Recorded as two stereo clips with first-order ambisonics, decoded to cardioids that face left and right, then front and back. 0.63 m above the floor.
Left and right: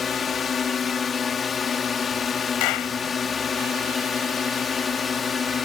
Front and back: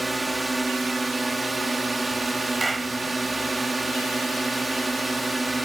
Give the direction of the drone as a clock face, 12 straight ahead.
8 o'clock.